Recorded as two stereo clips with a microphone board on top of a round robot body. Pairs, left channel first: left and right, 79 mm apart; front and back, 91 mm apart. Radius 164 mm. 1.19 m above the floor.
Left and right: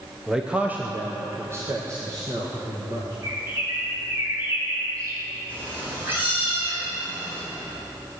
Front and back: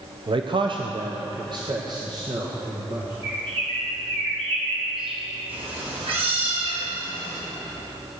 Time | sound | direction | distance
0.3 | a man speaking | 175° right | 0.9 m
3.2 | a bird | 150° right | 2.5 m
5.5 | a cat meowing | 155° right | 4.5 m